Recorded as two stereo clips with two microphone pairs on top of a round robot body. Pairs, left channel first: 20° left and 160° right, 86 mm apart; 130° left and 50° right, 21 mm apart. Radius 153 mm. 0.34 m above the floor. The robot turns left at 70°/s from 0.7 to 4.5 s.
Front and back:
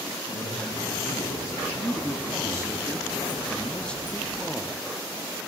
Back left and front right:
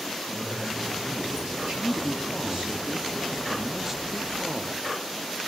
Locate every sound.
0.3 s a man speaking: 25° left, 6 m; by 2.8 s 120° right, 6 m
1.8 s a man speaking: 155° left, 0.9 m; by 4.8 s 35° right, 0.9 m